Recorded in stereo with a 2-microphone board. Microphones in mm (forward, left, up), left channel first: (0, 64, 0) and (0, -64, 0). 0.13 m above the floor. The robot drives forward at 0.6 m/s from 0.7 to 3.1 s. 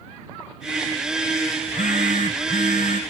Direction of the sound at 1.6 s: 80° left.